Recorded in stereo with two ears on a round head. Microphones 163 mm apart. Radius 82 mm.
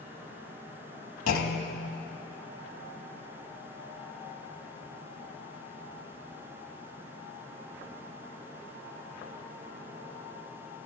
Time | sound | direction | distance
1.3 | a clunk | 85° left | 1.2 m